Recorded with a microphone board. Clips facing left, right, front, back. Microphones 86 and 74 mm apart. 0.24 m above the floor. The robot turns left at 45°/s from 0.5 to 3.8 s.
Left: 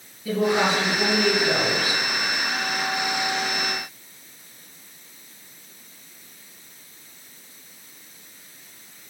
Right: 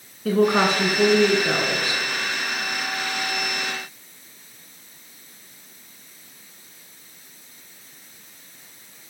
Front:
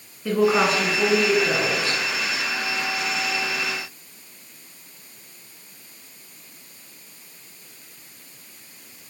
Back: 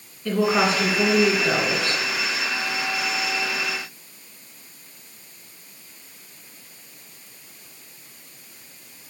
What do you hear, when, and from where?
0.2 s a woman speaking: 80° right, 2.5 m; by 2.0 s 150° right, 2.5 m